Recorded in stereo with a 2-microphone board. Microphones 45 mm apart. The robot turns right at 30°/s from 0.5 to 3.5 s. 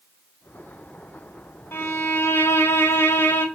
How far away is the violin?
About 0.9 m.